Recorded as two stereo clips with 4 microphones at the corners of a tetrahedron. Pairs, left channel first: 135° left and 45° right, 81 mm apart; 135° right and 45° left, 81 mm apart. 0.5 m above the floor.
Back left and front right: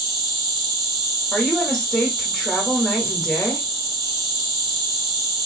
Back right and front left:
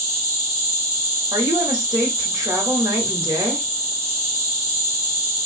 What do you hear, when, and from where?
0.0 s an insect: 20° right, 1.4 m
1.3 s a woman speaking: 50° left, 1.1 m